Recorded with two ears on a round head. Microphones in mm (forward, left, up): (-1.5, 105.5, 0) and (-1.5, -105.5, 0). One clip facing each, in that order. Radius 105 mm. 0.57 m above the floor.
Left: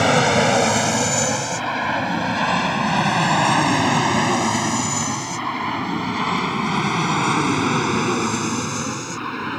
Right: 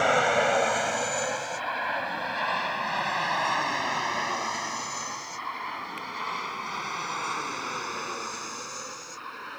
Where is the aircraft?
60° left (ahead or behind); by 9.6 s 80° left.